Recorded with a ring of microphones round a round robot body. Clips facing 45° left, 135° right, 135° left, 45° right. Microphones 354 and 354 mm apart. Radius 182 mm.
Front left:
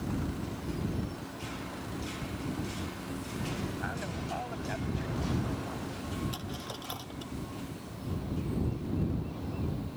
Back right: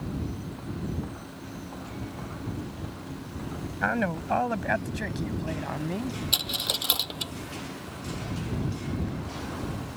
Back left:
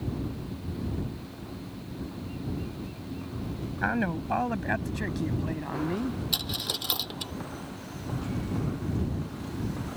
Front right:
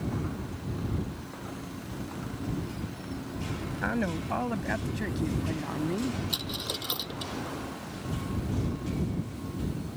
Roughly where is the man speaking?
Behind right.